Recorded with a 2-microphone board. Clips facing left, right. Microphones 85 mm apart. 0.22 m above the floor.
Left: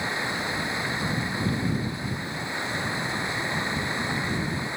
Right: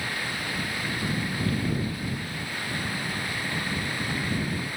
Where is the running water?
20° left (ahead or behind).